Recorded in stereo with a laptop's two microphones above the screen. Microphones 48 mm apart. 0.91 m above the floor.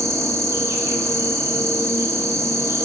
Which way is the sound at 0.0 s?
80° right.